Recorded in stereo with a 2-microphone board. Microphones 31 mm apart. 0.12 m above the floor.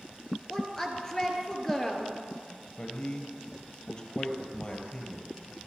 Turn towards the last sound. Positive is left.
turn(degrees=30)  # may be behind; listen again after turning